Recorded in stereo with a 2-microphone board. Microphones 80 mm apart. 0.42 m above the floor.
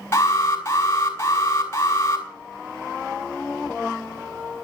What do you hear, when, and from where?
0.1 s an alarm: 35° left (ahead or behind), 4.5 m